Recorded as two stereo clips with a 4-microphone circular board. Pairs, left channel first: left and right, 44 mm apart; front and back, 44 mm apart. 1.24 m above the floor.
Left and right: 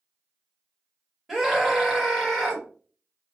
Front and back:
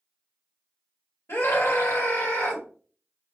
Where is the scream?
5° right, 1.6 m.